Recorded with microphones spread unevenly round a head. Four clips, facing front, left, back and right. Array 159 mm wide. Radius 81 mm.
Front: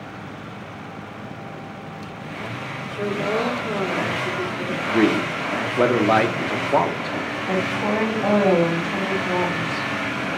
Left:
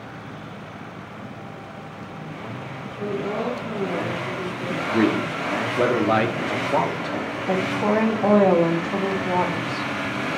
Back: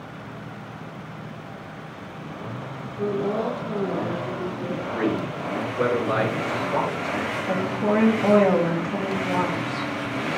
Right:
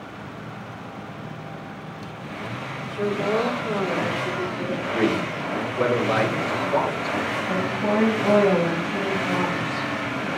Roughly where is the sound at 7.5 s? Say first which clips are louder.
Left 4 dB, even; ahead left.